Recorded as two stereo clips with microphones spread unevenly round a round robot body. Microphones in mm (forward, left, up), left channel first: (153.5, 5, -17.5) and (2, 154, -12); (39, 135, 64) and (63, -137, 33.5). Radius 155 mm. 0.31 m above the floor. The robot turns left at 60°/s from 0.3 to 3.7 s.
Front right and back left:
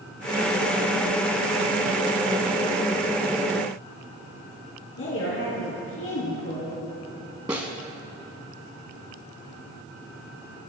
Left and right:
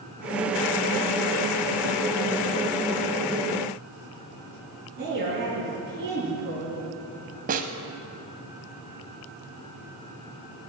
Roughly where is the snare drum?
Behind right.